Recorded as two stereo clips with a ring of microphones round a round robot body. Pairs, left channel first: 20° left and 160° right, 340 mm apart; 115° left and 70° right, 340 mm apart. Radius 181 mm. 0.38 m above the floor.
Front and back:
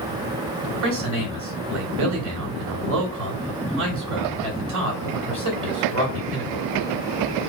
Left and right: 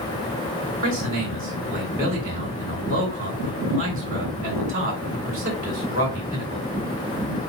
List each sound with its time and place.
0.8 s a man speaking: 125° right, 1.9 m